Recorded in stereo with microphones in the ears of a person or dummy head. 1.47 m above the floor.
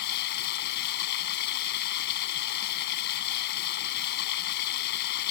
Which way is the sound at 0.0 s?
60° left (ahead or behind).